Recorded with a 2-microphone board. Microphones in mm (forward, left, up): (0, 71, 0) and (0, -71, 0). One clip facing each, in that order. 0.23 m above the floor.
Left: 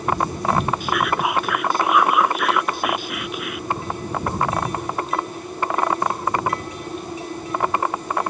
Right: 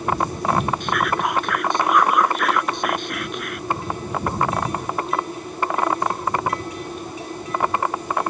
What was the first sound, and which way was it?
Whispering, 5° left (ahead or behind).